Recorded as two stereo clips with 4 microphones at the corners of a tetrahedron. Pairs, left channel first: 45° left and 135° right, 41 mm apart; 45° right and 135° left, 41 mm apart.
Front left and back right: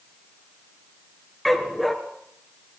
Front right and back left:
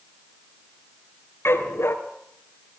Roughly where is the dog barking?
Ahead right.